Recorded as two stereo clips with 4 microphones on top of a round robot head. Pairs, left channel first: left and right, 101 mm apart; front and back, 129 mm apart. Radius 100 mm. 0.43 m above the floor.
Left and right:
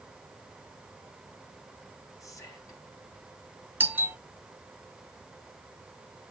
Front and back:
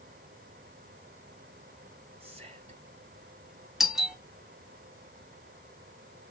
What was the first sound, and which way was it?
Whispering, 145° left.